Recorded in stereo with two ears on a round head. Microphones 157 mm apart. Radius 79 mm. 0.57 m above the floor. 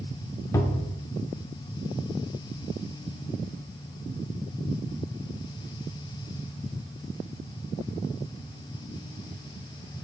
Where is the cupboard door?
20° left (ahead or behind), 0.7 m.